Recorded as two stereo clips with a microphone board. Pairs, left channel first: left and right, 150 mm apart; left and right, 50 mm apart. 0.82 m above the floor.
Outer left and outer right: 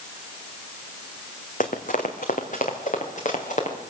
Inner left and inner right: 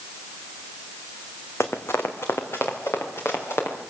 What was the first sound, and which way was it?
Running footsteps, 60° left (ahead or behind).